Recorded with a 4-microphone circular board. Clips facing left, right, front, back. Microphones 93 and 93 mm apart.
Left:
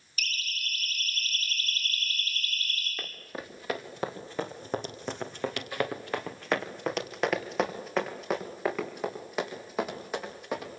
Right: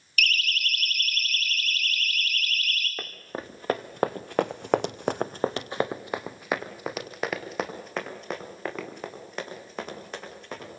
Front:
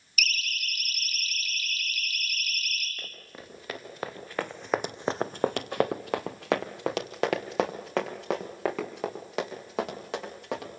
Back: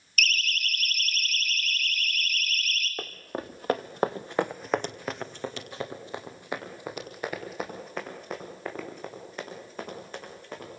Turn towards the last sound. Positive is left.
turn(degrees=10)